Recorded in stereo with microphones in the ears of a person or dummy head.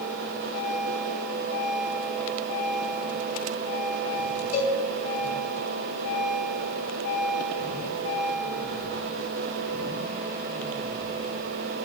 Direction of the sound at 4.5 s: 55° left (ahead or behind).